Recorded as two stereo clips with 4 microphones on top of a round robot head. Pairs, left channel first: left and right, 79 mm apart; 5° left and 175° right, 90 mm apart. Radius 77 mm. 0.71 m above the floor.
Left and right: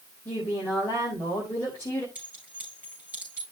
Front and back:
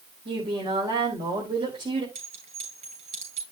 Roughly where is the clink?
Behind.